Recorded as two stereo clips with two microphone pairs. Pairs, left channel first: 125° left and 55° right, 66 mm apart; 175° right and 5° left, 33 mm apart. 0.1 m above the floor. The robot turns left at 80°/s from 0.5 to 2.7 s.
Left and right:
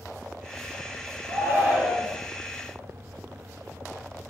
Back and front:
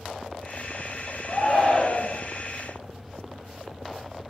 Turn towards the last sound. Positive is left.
turn(degrees=160)